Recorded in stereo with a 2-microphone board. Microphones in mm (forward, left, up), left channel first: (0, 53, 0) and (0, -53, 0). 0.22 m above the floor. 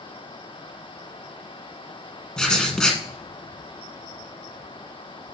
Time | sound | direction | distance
2.4 | writing | 5° left (ahead or behind) | 1.1 m